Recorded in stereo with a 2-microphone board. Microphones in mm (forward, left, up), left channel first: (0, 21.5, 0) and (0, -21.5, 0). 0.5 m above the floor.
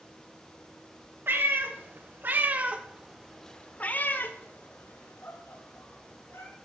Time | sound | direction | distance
1.3 | a cat meowing | 60° right (ahead or behind) | 1.3 m